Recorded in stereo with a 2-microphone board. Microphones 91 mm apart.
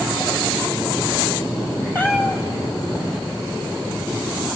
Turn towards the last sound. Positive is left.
turn(degrees=20)  # may be behind; listen again after turning